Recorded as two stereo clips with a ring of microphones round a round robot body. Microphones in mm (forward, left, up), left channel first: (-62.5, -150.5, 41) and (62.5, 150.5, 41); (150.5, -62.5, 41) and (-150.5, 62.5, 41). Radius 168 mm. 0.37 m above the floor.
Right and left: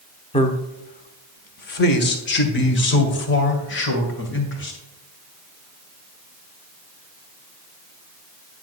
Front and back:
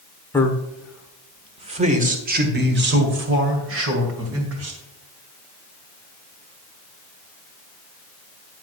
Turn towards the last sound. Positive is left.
turn(degrees=-165)